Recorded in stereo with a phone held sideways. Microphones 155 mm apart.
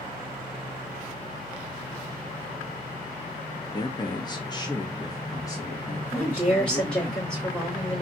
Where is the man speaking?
25° left (ahead or behind), 0.7 m; by 7.1 s 15° left (ahead or behind), 2 m.